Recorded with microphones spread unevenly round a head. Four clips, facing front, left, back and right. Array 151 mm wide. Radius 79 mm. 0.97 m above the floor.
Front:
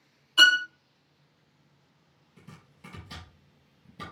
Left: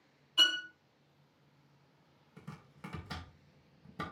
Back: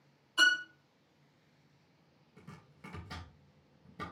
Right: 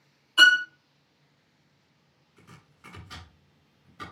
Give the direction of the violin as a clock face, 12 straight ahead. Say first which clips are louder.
Right 17 dB, front 7 dB; 3 o'clock.